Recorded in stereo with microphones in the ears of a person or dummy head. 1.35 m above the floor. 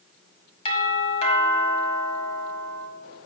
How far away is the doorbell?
About 1.2 m.